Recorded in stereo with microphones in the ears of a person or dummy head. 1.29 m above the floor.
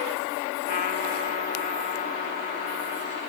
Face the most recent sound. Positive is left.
turn(degrees=55)  # may be behind; listen again after turning